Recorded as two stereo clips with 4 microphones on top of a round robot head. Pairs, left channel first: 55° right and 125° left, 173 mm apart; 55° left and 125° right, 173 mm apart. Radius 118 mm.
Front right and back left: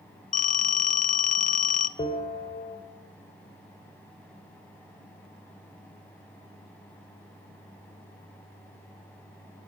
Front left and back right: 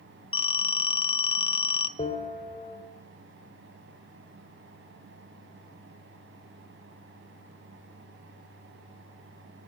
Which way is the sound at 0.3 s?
5° right.